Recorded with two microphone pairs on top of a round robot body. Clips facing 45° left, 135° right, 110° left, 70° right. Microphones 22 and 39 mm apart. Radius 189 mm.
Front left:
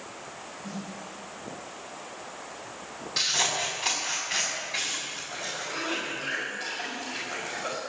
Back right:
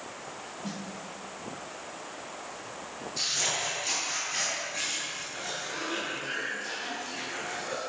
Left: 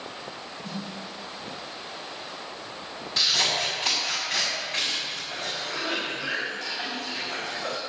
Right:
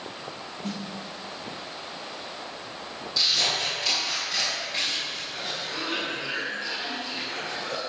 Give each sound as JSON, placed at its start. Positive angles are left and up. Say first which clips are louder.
{"t": 0.6, "sound": "a snare drum", "louder": "even, right 2 dB", "azimuth_deg": -110, "distance_m": 2.5}
{"t": 3.2, "sound": "scissors", "louder": "front left 4 dB, left 1 dB", "azimuth_deg": 60, "distance_m": 6.0}
{"t": 5.3, "sound": "a cough", "louder": "front left 2 dB, left 1 dB", "azimuth_deg": 85, "distance_m": 6.0}